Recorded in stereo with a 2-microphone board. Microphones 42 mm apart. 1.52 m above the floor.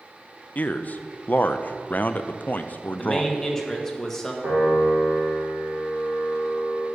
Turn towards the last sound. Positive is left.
turn(degrees=-55)  # may be behind; listen again after turning